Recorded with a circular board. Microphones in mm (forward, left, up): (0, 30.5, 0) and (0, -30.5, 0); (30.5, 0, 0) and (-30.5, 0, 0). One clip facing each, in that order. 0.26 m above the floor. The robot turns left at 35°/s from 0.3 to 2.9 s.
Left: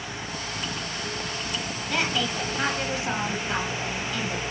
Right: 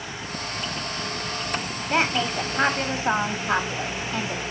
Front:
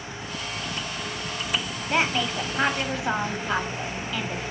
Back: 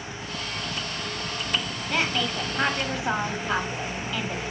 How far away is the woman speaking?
About 1.4 m.